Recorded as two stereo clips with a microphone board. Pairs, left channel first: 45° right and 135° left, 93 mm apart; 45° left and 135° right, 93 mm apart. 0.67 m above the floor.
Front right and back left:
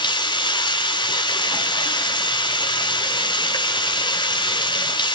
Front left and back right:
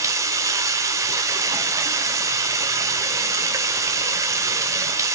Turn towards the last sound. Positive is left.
turn(degrees=-80)